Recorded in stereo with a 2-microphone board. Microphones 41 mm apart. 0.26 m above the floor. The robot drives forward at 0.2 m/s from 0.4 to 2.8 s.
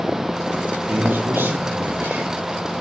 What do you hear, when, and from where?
0.9 s a man speaking: 70° right (ahead or behind), 6.5 m; by 2.3 s 65° right (ahead or behind), 6.5 m